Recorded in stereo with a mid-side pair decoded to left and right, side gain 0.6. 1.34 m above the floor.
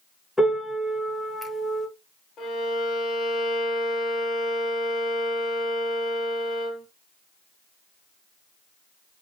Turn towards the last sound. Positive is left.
turn(degrees=50)